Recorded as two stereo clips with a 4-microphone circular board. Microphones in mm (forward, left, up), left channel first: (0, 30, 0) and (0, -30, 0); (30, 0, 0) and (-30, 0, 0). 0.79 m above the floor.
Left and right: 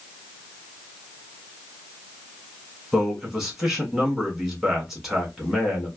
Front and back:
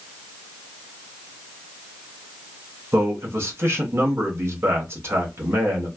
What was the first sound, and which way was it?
A man speaking, 175° right.